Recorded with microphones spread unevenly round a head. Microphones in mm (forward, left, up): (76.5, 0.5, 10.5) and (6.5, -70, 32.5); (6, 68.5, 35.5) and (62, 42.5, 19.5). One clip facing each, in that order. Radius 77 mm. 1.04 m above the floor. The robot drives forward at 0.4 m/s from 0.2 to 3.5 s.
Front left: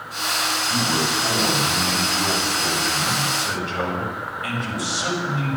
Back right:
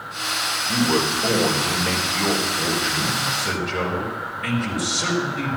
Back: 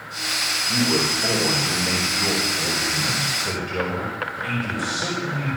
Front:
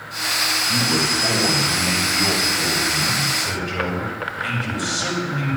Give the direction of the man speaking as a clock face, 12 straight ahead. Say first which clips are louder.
Back right 5 dB, back 2 dB; 5 o'clock.